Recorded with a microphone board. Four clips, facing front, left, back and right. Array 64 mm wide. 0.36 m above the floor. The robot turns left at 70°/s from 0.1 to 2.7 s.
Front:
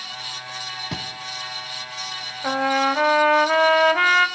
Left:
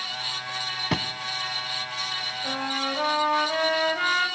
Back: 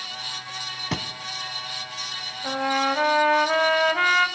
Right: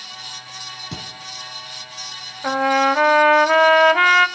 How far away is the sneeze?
I don't hear a sneeze.